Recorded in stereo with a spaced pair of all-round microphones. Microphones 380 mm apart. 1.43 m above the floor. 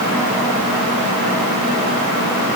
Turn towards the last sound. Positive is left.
No sound to turn to.